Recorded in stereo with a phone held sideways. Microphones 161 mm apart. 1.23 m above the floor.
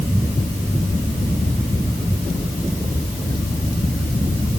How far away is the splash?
No splash in this recording.